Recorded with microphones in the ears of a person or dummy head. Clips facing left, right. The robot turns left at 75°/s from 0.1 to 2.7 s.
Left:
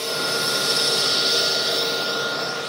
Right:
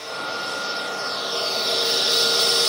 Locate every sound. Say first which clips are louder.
0.0 s a drone: left 5 dB; 130° left; by 2.7 s 65° right